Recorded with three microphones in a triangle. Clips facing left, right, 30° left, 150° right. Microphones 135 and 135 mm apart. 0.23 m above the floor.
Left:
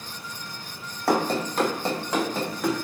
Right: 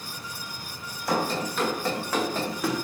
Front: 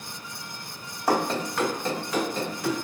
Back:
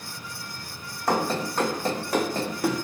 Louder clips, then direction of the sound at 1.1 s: Left 4 dB, even; 110° left.